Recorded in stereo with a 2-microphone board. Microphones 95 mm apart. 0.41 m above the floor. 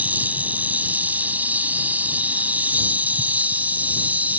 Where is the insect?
15° right (ahead or behind).